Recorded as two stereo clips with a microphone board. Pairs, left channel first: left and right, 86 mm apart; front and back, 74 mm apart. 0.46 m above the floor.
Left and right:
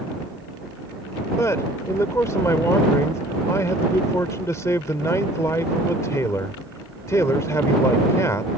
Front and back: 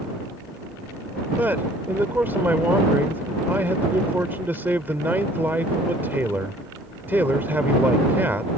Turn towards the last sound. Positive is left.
turn(degrees=130)